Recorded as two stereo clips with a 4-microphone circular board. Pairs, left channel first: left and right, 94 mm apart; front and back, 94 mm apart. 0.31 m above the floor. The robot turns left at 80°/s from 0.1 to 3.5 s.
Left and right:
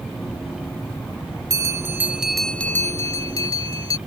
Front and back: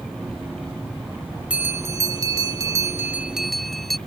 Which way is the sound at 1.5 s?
110° right.